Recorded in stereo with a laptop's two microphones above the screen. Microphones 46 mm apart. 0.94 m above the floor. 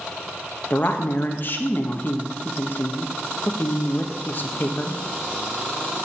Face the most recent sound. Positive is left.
turn(degrees=45)  # may be behind; listen again after turning